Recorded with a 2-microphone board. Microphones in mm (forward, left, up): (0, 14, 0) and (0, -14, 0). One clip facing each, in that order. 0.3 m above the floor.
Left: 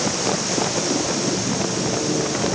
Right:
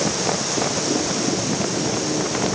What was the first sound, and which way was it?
Only background noise.